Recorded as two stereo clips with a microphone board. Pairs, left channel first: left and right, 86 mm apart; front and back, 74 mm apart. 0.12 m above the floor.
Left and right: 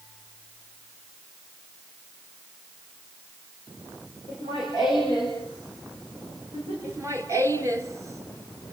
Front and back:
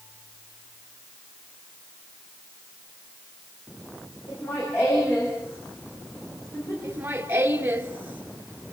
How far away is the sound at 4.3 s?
About 8.5 m.